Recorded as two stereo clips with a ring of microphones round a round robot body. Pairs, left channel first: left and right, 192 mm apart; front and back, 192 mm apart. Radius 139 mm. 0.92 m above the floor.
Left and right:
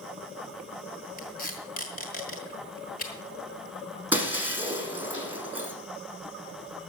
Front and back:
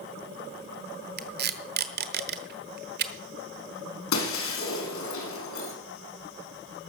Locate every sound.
1.2 s tape being pulled: 150° left, 1.2 m
4.1 s breaking glass: 10° right, 4 m